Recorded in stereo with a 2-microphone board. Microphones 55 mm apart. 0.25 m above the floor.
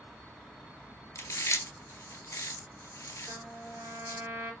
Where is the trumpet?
50° right (ahead or behind), 2.5 m.